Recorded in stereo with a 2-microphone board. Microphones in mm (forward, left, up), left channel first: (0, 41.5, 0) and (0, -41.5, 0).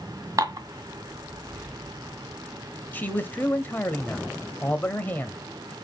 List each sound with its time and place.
0.4 s dishes clattering: 45° right (ahead or behind), 1.3 m
2.9 s a man speaking: 25° left (ahead or behind), 1.0 m